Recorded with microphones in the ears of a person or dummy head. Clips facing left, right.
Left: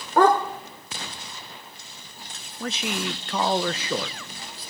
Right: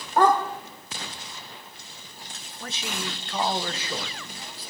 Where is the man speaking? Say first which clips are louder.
Left 6 dB; 55° left (ahead or behind), 0.9 m.